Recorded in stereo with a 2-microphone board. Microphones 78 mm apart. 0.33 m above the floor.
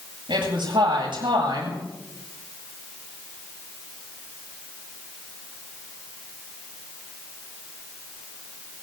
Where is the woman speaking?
80° right, 8 m.